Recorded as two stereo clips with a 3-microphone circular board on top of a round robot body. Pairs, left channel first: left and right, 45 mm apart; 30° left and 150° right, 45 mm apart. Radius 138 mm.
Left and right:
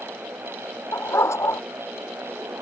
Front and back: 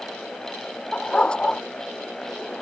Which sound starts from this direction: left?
A dog barking, at 0.9 s.